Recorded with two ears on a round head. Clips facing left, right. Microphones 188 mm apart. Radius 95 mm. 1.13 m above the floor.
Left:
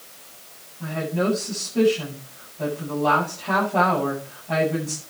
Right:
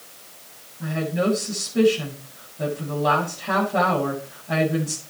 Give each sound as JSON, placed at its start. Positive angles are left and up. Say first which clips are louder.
{"t": 0.8, "sound": "a woman speaking", "louder": "right 1 dB", "side_deg": -15, "distance_m": 8.5}